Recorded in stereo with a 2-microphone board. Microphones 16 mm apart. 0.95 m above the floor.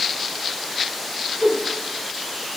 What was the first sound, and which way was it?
A whoosh, 70° right (ahead or behind).